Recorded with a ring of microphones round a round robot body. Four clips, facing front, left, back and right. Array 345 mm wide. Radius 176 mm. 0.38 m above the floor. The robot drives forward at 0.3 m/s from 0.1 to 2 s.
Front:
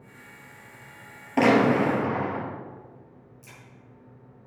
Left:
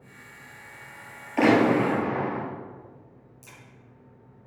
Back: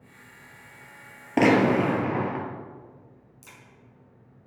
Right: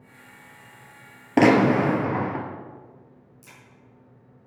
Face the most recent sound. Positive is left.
turn(degrees=-175)